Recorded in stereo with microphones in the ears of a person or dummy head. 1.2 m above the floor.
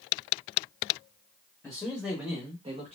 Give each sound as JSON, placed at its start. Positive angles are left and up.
{"t": 1.6, "sound": "a man speaking", "side_deg": 5, "distance_m": 1.4}